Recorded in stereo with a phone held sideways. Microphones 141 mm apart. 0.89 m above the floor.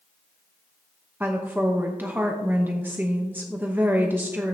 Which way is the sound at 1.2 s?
15° right (ahead or behind).